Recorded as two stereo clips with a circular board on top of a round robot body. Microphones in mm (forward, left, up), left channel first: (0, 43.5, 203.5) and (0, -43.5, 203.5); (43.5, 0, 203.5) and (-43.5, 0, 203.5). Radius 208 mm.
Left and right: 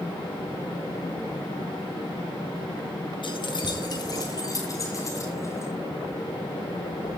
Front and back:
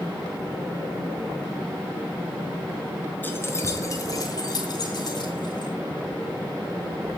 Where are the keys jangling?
70° left, 2 m; by 5.7 s 30° left, 5.5 m.